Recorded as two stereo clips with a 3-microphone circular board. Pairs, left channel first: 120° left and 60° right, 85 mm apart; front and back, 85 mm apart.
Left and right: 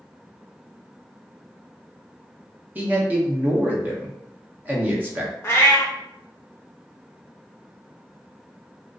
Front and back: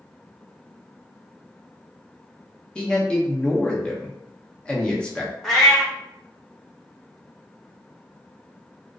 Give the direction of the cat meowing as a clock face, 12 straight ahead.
9 o'clock.